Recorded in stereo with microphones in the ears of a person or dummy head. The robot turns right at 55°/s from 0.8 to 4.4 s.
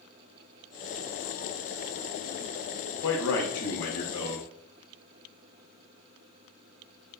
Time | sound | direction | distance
3.0 | a man speaking | 80° left | 0.7 m